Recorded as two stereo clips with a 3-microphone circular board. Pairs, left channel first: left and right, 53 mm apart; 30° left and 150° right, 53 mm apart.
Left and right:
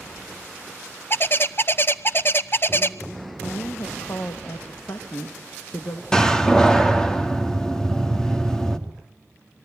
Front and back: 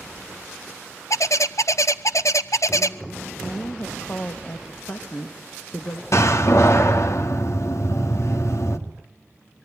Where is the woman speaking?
80° left, 1.6 m.